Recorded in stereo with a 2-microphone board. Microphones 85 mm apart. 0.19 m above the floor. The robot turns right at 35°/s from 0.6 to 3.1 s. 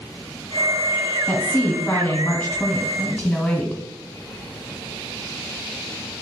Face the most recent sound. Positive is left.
turn(degrees=15)  # may be behind; listen again after turning